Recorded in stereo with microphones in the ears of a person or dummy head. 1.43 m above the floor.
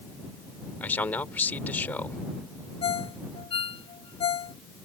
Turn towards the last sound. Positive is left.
turn(degrees=40)  # may be behind; listen again after turning